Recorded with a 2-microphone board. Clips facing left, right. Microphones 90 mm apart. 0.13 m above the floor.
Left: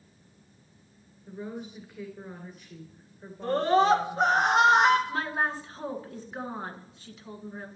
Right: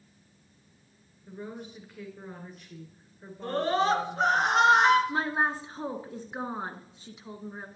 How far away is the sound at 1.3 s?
About 2.0 m.